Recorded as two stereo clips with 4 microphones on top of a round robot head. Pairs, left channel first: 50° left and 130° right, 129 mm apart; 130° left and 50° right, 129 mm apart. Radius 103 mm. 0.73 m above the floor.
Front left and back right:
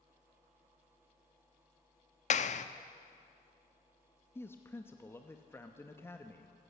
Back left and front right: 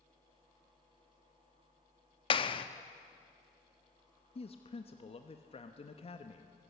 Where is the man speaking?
120° left, 1.0 m.